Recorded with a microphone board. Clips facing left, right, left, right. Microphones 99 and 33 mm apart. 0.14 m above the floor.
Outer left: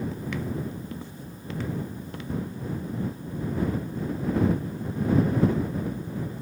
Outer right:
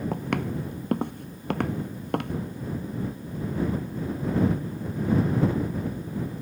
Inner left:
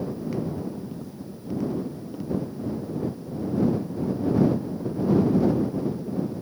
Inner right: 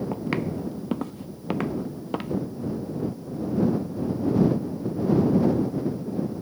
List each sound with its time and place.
0.1 s footsteps: 60° right (ahead or behind)